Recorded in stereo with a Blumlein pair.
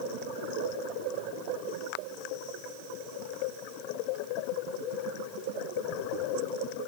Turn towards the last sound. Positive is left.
No sound to turn to.